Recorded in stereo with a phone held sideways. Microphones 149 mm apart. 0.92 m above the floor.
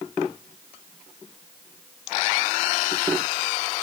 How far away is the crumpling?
No crumpling in this recording.